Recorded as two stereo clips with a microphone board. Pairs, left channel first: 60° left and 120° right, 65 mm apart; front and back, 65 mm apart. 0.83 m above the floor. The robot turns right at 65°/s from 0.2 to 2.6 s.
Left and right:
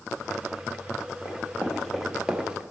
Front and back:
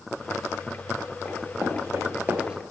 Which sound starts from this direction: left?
Running footsteps, at 1.2 s.